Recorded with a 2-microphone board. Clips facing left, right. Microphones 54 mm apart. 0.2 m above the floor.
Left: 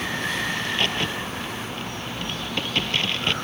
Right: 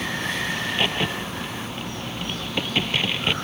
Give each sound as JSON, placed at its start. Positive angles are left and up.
{"t": 0.6, "sound": "a crack", "side_deg": -10}